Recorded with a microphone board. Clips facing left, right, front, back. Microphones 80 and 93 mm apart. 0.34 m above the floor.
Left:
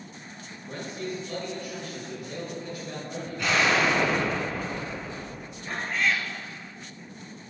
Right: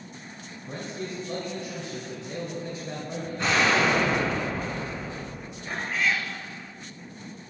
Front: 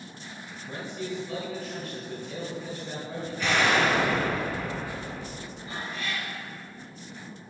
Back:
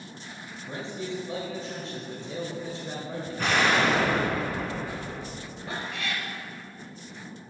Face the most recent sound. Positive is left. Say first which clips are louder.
# even, back 1 dB
turn(degrees=-175)